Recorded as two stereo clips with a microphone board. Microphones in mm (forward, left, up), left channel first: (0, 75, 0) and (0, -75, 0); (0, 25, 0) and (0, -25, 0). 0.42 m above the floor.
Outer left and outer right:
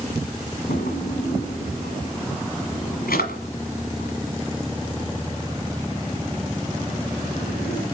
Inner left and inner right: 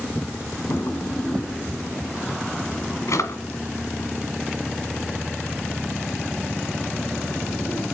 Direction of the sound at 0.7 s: 85° left.